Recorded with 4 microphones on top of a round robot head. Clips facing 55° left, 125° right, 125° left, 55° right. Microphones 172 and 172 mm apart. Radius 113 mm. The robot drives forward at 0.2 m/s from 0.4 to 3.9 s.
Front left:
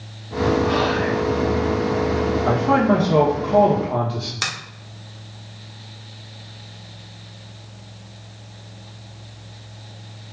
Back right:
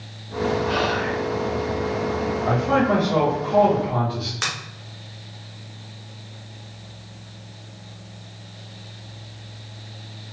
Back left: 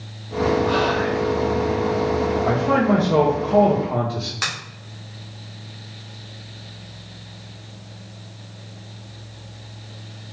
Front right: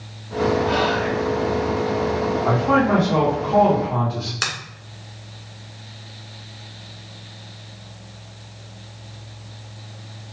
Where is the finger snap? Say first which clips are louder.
Even, front right 1 dB; 5° left, 1.2 m.